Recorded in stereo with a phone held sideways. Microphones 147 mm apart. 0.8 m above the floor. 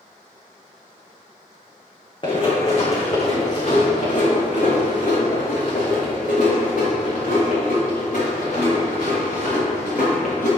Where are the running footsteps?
35° left (ahead or behind), 3 m; by 10.5 s 80° left, 6 m.